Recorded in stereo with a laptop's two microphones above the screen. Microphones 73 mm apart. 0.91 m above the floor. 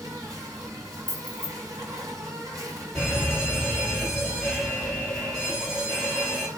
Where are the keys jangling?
25° left (ahead or behind), 1.7 m.